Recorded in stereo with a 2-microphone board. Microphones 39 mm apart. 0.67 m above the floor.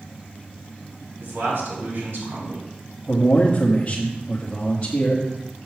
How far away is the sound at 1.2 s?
About 5 m.